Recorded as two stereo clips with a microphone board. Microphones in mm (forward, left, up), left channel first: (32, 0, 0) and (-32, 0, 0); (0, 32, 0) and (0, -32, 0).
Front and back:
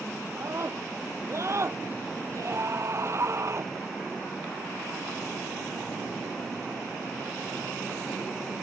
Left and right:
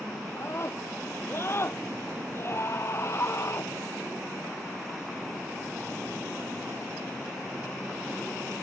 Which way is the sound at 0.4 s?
140° left.